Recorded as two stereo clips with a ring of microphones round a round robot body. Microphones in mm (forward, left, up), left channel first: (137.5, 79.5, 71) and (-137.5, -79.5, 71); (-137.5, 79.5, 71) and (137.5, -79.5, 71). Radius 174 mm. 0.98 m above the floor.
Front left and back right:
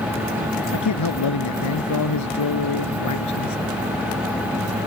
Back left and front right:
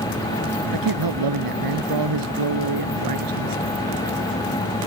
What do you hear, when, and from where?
0.7 s a man speaking: 5° right